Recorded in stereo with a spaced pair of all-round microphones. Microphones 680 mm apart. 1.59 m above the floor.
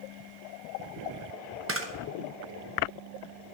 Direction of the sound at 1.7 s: 20° right (ahead or behind).